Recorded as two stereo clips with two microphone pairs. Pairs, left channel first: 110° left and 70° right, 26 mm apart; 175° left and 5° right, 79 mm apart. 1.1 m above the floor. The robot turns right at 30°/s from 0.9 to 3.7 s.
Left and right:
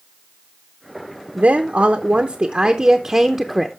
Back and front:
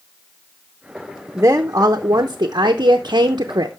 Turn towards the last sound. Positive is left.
turn(degrees=5)